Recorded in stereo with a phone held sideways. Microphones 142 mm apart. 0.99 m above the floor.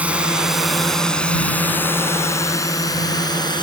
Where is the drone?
10° right (ahead or behind); by 3.6 s 30° left (ahead or behind).